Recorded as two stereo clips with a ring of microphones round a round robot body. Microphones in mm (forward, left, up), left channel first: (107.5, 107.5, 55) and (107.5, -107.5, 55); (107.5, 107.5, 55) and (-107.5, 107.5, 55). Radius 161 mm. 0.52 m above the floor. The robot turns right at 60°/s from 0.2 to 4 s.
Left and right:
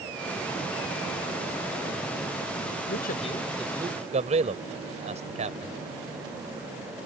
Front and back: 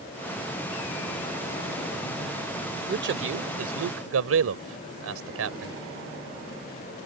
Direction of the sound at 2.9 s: 135° left.